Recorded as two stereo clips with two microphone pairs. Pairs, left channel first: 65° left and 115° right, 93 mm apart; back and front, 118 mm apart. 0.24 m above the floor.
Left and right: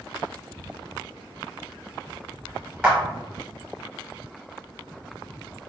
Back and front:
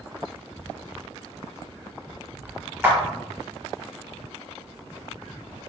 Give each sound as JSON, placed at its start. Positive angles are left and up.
{"t": 2.8, "sound": "a clap", "azimuth_deg": -50, "distance_m": 1.2}